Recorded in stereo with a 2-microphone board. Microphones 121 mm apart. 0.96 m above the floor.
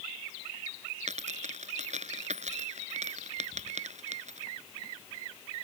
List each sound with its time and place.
1.1 s a dropped coin: 75° right (ahead or behind)